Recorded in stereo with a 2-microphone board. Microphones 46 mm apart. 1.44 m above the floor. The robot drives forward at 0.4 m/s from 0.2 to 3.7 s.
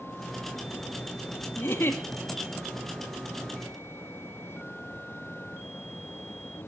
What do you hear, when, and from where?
1.6 s a giggle: 55° left (ahead or behind), 2 m